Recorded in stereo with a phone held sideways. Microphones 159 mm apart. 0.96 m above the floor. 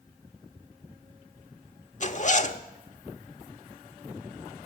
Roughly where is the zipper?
Left.